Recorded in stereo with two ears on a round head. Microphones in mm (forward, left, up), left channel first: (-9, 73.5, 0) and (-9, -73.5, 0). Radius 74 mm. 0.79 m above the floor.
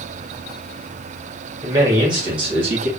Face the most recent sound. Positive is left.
turn(degrees=-40)  # may be behind; listen again after turning